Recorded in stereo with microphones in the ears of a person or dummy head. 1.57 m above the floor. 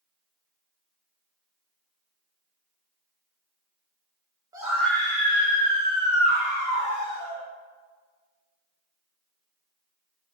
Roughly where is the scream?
Centre.